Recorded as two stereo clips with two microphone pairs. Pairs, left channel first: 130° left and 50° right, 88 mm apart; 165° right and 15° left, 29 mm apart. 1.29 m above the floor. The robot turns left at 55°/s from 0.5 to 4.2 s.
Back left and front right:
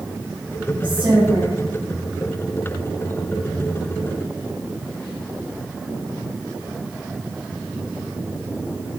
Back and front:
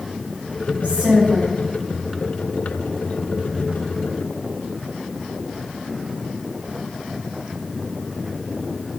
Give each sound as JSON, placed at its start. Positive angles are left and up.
{"t": 0.8, "sound": "a woman speaking", "azimuth_deg": -25, "distance_m": 3.0}